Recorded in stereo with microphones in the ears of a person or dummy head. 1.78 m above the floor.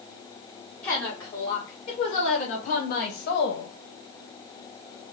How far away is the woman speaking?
About 1.9 m.